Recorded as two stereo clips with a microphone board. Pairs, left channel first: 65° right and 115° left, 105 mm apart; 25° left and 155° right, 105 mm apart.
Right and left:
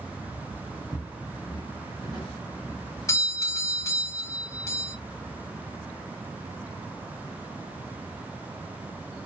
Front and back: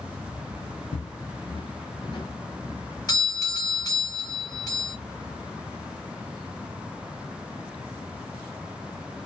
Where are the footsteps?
20° left, 0.5 m; by 2.8 s 25° right, 1.9 m.